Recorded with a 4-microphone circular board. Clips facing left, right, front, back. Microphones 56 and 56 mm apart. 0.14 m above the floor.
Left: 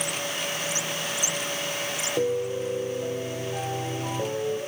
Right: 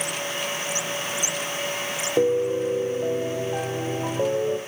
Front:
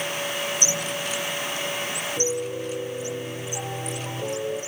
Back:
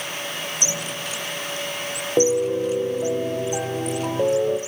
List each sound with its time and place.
2.2 s a piano: 155° right, 3 m